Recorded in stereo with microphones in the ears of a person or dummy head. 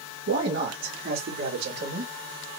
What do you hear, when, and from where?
0.3 s a man speaking: 55° right (ahead or behind), 1.9 m; by 2.1 s 50° right (ahead or behind), 3 m